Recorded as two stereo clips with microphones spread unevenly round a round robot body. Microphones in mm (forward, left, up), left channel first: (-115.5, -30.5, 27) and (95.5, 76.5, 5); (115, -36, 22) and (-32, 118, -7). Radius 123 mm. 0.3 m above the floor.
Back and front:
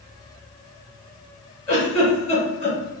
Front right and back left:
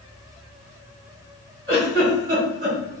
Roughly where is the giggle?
Behind.